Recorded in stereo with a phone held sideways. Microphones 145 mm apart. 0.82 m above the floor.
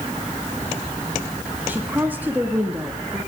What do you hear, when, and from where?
1.7 s a woman speaking: 15° right (ahead or behind), 1.3 m